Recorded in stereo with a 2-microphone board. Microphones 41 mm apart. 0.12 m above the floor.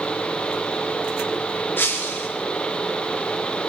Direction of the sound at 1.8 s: 75° left (ahead or behind).